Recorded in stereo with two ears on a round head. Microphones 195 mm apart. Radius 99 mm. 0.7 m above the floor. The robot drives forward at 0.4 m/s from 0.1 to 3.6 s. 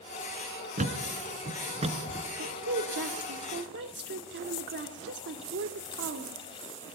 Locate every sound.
0.8 s a thud: 35° right (ahead or behind), 2 m; by 2.3 s 30° right (ahead or behind), 2.5 m
2.4 s a woman speaking: 60° right (ahead or behind), 1.9 m; by 6.3 s 55° right (ahead or behind), 2 m